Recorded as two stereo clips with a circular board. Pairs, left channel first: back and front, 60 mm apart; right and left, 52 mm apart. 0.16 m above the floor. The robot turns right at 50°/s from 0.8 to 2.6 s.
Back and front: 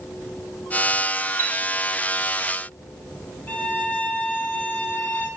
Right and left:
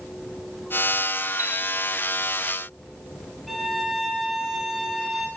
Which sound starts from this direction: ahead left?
A chime, at 1.4 s.